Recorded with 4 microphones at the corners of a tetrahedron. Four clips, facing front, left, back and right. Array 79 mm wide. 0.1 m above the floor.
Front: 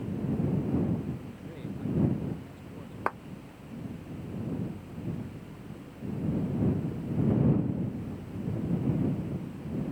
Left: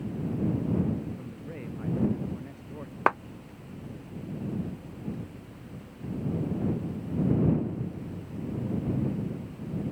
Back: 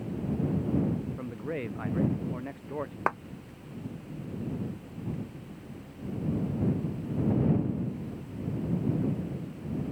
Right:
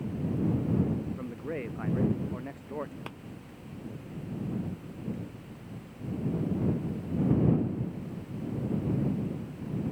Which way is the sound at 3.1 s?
100° left.